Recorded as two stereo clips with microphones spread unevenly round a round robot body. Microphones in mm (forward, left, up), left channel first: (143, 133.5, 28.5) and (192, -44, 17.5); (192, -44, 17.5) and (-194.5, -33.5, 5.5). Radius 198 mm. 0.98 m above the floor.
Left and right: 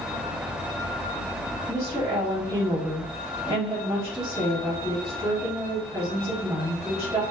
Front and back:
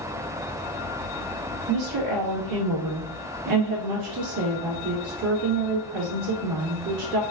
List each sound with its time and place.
1.7 s a woman speaking: 155° right, 1.5 m